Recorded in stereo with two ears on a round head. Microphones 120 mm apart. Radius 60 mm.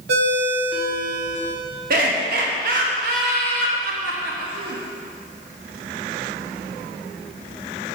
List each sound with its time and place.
0.1 s a ringtone: 85° right, 1.1 m
1.9 s laughter: 70° right (ahead or behind), 0.8 m